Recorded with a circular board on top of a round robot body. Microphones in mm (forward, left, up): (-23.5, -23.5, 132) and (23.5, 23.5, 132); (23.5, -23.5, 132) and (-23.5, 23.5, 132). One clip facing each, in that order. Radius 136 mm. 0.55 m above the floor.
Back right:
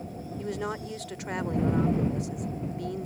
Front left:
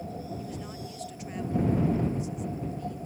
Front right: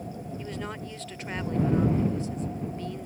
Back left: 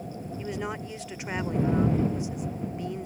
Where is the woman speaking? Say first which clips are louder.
Back right 6 dB, back left 5 dB; 150° right.